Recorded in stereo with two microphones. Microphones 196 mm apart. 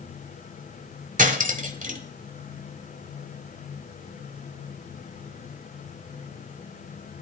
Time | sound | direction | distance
1.2 | cutlery clinking | 40° right (ahead or behind) | 1.4 m